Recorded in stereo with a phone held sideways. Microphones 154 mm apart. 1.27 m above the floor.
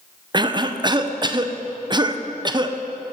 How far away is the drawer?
No drawer in this recording.